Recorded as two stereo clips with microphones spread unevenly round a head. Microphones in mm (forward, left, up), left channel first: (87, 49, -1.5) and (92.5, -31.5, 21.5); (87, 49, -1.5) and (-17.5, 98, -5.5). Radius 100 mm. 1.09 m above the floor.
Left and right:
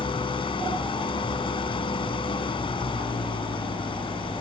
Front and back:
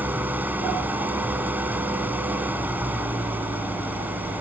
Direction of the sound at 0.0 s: 80° left.